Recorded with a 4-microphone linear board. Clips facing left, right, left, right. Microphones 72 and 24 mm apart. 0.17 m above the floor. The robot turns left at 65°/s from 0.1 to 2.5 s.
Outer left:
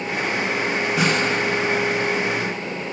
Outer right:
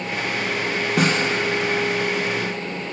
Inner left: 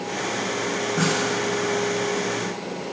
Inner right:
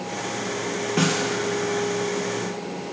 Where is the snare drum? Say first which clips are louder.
Outer right 2 dB, inner right 1 dB; 55° right (ahead or behind), 1.2 m; by 1.2 s 40° right (ahead or behind), 1.2 m.